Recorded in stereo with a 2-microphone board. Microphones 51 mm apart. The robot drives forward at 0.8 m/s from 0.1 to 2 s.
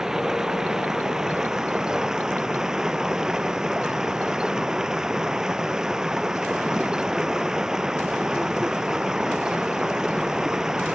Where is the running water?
10° right (ahead or behind); by 11.0 s 15° right (ahead or behind).